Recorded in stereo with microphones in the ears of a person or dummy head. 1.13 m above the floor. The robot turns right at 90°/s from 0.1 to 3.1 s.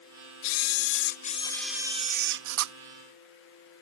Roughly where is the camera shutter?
Ahead left.